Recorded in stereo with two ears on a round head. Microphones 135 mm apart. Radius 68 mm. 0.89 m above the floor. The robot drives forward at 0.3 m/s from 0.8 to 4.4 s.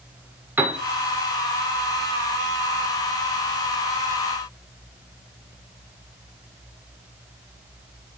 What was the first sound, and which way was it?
A piano, 15° right (ahead or behind).